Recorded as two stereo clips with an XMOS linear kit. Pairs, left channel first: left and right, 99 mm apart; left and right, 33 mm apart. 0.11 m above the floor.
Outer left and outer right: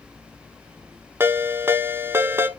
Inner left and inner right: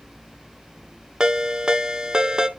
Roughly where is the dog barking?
No dog barking in this recording.